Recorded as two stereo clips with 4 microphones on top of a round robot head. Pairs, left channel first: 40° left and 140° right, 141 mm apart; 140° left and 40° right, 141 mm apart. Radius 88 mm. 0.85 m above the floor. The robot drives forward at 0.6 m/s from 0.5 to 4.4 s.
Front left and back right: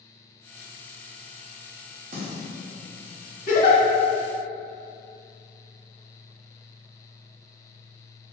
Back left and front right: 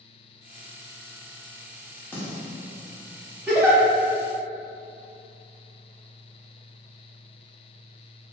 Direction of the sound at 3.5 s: 40° left.